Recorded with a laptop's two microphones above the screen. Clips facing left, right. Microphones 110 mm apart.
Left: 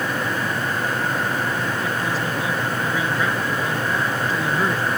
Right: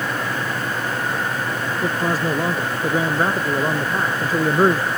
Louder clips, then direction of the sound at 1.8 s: Right 3 dB; 40° right (ahead or behind).